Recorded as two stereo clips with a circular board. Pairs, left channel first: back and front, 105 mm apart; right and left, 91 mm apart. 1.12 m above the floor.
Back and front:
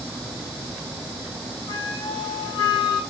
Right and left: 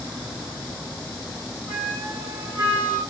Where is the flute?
150° left, 1.7 m.